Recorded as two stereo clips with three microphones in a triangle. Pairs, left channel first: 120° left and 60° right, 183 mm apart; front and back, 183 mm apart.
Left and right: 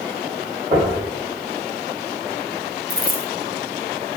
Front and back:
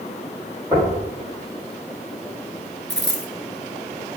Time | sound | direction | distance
0.7 | knocking | 110° right | 2.5 m
2.9 | a dropped coin | 25° right | 0.8 m